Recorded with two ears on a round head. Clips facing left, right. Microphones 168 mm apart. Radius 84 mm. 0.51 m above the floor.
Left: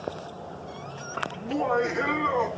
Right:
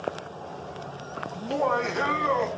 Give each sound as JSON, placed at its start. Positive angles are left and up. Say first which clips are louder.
{"t": 1.4, "sound": "laughter", "louder": "even", "side_deg": -50, "distance_m": 3.0}